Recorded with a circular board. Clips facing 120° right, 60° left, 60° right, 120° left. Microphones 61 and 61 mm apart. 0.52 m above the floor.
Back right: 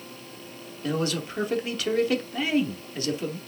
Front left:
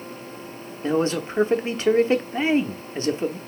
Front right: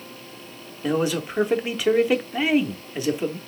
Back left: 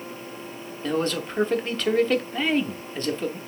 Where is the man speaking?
15° left, 0.8 m.